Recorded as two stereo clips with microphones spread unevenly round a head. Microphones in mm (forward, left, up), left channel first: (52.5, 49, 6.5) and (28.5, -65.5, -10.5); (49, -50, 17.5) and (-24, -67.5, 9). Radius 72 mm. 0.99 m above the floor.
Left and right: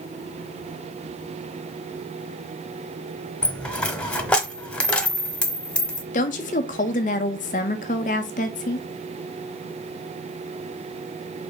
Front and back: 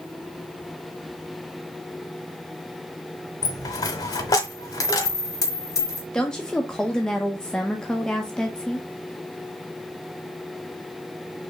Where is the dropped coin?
5° left, 1.1 m.